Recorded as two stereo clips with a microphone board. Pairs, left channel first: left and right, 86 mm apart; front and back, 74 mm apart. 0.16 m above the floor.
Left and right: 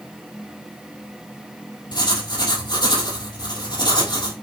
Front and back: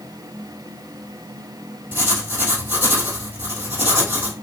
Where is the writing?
115° left, 2.5 m.